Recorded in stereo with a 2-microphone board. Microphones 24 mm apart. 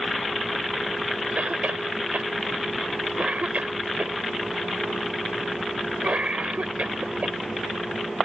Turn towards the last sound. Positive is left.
turn(degrees=-60)  # may be behind; listen again after turning